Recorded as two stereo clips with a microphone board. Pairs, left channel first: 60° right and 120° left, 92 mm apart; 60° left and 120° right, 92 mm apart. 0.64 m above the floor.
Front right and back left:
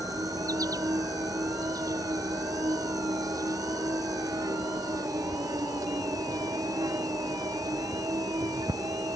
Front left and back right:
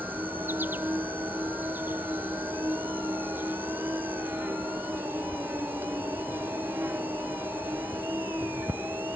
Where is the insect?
170° left.